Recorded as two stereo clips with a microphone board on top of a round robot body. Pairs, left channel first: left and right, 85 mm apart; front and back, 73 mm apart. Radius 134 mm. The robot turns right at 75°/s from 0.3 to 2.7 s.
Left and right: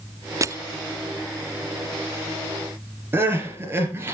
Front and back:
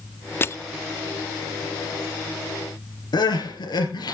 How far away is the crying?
About 3.5 m.